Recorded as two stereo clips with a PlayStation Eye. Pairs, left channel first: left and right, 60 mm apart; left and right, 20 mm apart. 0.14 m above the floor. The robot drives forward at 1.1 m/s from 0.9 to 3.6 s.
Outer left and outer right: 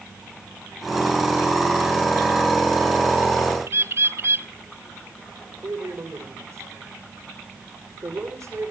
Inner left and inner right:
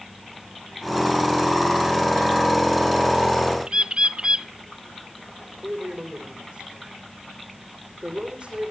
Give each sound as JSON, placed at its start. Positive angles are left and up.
{"t": 3.7, "sound": "a bird", "side_deg": -50, "distance_m": 0.6}
{"t": 5.6, "sound": "a man speaking", "side_deg": -55, "distance_m": 7.5}